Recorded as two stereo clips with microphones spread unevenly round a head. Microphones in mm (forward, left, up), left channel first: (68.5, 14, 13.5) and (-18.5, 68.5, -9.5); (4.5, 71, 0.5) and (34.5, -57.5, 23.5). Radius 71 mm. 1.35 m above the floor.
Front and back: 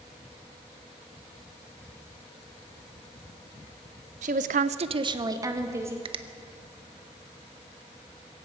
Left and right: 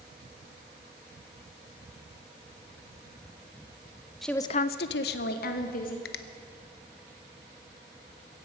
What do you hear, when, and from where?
4.2 s a woman speaking: 165° right, 0.7 m; by 6.0 s 80° left, 2.0 m
6.0 s a finger snap: 110° left, 0.8 m